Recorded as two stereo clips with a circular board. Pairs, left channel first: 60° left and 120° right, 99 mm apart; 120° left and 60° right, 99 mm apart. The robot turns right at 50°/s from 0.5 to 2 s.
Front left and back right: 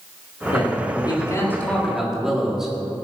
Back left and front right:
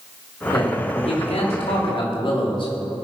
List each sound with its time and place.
0.5 s a man speaking: 80° left, 3.5 m; by 2.7 s 155° left, 3.5 m